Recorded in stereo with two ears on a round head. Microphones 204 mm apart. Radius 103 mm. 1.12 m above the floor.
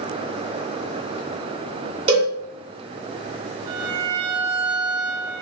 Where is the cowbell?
30° right (ahead or behind), 1.1 m.